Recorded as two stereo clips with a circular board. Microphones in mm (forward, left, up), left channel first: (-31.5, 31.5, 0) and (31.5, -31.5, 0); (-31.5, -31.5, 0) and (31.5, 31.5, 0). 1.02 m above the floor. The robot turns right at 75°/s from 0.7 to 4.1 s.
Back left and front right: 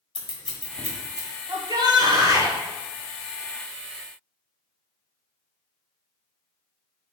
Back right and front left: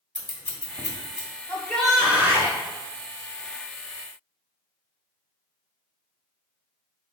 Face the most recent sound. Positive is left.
turn(degrees=120)